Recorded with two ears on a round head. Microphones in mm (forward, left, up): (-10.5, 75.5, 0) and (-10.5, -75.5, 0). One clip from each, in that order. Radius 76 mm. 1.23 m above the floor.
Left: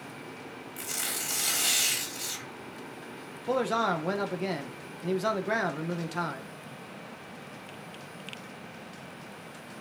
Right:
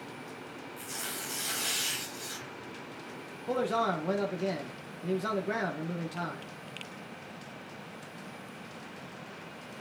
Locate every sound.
0.8 s tearing paper: 50° left (ahead or behind), 3 m
3.5 s a man speaking: 35° left (ahead or behind), 1.0 m